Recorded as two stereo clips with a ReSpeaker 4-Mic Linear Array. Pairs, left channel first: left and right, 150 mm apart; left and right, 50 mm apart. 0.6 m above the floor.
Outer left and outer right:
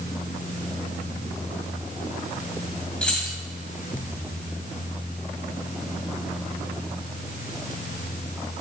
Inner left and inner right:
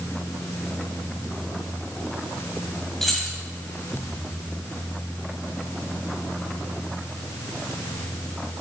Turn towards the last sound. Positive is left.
turn(degrees=5)  # may be behind; listen again after turning